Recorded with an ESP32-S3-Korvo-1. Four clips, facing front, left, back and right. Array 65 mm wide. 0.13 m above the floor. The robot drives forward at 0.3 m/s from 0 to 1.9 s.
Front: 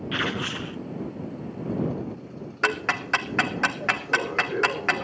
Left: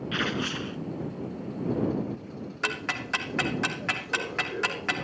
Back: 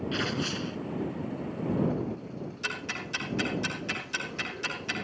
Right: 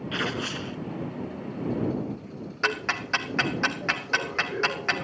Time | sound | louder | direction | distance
0.1 | tearing paper | even, front 6 dB | 5° left | 0.9 m
2.6 | ticking | right 4 dB, front 13 dB | 10° right | 1.5 m